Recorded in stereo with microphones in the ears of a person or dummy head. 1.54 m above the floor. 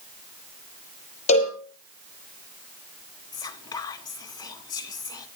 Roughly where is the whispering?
Left.